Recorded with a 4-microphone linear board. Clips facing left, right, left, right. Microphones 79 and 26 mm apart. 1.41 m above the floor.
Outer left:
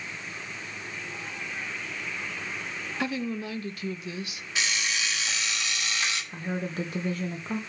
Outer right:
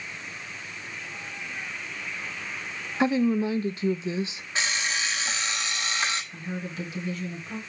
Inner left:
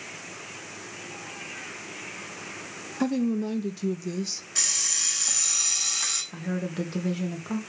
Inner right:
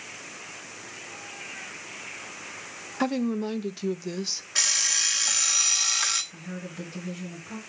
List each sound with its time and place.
3.0 s a woman speaking: 25° right (ahead or behind), 0.6 m
4.5 s an alarm clock: 35° right (ahead or behind), 1.0 m
6.3 s a woman speaking: 45° left (ahead or behind), 1.6 m